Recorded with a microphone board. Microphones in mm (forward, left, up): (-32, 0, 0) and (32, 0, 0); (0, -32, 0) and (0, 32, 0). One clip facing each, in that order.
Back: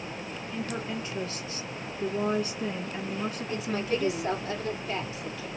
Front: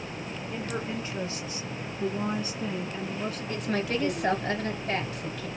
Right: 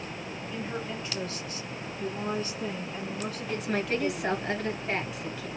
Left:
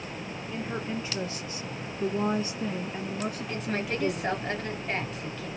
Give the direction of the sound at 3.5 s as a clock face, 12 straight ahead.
12 o'clock.